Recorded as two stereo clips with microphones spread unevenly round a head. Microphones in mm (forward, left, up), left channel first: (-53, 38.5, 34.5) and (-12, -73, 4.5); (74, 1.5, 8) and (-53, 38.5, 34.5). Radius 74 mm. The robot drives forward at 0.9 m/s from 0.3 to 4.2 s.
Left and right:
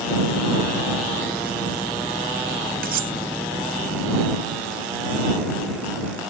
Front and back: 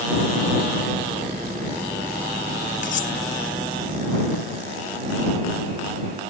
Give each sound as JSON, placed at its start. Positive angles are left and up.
{"t": 2.8, "sound": "cutlery clinking", "azimuth_deg": -55}